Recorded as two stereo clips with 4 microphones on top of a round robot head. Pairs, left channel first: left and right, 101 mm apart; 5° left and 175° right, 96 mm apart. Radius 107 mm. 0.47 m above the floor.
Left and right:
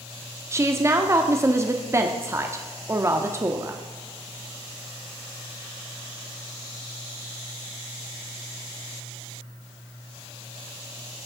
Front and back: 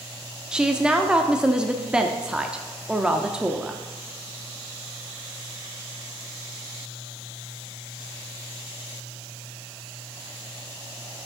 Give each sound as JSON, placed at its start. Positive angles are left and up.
{"t": 0.5, "sound": "a woman speaking", "azimuth_deg": -105, "distance_m": 1.0}